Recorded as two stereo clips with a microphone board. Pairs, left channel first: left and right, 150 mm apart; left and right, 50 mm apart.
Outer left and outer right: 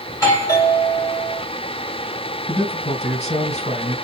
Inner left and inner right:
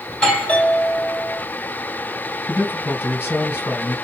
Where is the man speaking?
45° left (ahead or behind), 3.5 m.